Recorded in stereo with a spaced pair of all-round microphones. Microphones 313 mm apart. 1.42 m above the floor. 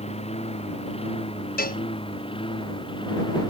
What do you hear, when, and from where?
0.0 s a lawn mower: 20° left (ahead or behind); by 3.5 s 15° left (ahead or behind)
1.6 s a cowbell: 30° left (ahead or behind)